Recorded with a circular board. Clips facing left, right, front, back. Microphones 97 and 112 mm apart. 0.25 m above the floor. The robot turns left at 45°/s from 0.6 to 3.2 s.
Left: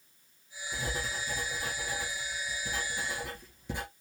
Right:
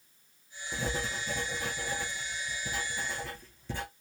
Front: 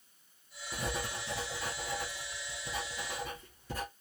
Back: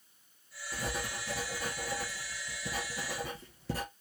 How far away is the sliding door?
I don't hear a sliding door.